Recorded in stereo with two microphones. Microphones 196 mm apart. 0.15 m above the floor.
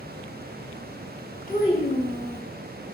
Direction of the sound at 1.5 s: 45° left (ahead or behind).